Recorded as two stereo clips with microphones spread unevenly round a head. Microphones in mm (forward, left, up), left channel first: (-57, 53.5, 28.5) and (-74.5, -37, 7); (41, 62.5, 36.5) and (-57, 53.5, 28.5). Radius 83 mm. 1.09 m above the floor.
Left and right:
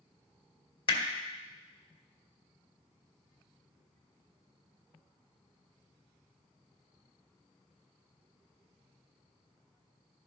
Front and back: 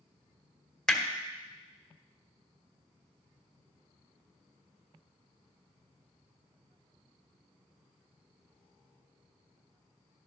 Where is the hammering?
90° left, 1.6 m.